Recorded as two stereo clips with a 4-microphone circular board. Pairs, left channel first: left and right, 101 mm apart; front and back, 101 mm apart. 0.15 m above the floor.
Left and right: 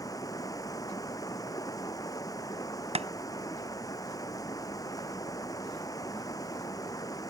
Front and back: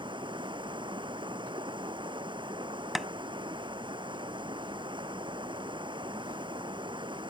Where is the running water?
145° left.